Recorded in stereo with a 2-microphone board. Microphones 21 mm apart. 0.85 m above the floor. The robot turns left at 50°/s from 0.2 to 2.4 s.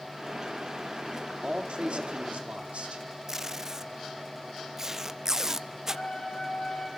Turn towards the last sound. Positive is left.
turn(degrees=50)  # may be behind; listen again after turning